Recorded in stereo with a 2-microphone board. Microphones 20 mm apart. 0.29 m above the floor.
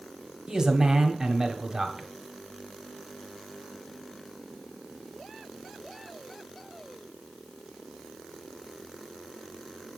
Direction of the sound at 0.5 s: 40° right (ahead or behind).